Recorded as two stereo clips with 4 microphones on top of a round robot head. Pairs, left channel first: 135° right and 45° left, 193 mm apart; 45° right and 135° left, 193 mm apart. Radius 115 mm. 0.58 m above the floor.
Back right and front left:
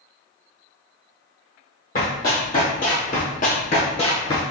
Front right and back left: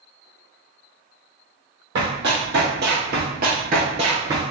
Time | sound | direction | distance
1.9 | running footsteps | 175° left | 1.5 m